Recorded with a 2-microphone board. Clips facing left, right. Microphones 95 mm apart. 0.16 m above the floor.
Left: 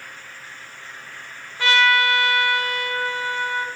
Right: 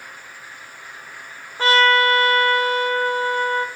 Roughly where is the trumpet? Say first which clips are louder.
Right 3 dB; right.